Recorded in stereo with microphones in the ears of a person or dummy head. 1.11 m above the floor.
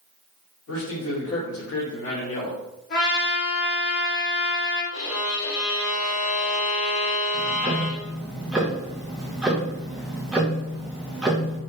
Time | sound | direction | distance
0.7 | a man speaking | 80° left | 1.7 m
2.9 | a trumpet | 50° left (ahead or behind) | 1.4 m
4.9 | a violin | 75° left (ahead or behind) | 0.7 m
7.3 | ticking | centre (ahead or behind) | 0.6 m